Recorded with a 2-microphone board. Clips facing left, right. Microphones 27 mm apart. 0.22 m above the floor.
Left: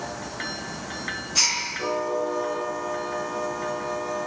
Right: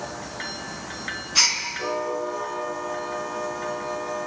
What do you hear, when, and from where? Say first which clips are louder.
1.4 s a gasp: right 3 dB; 25° right (ahead or behind), 3.5 m